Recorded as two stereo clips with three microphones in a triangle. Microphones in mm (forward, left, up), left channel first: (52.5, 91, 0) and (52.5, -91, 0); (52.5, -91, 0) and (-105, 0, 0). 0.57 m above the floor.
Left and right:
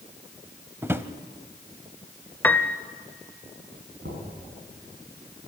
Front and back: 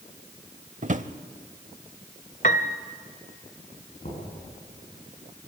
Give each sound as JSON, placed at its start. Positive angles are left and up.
{"t": 0.8, "sound": "a drawer", "azimuth_deg": -165, "distance_m": 0.7}
{"t": 2.4, "sound": "a piano", "azimuth_deg": 10, "distance_m": 0.8}
{"t": 4.0, "sound": "knocking", "azimuth_deg": -70, "distance_m": 6.0}